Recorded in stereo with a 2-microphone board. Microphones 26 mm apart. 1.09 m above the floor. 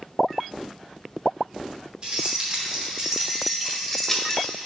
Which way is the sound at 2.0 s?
40° right (ahead or behind).